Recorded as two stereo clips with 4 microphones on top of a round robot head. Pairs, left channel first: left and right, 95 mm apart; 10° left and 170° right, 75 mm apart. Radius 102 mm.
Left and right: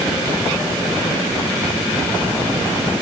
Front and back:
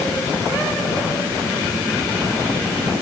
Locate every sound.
Only background noise.